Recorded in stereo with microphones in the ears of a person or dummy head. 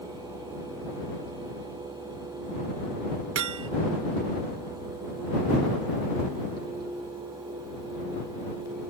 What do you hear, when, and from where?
3.4 s hammering: 70° right (ahead or behind)